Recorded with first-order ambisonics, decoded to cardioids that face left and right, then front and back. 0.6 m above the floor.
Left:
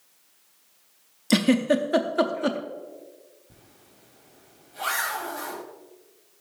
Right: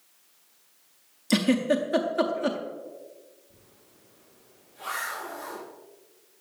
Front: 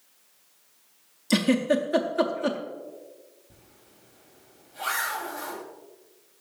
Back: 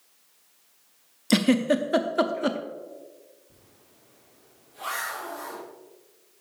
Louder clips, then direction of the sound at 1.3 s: Left 2 dB, back 1 dB; 150° left.